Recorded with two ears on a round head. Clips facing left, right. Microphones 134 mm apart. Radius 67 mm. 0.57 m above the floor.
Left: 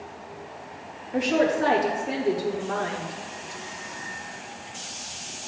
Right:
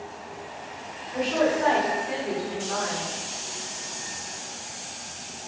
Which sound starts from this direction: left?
A woman speaking, at 1.1 s.